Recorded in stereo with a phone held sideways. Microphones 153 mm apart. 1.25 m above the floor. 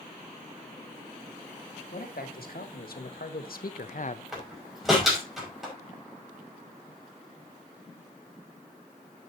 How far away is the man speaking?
About 2.5 m.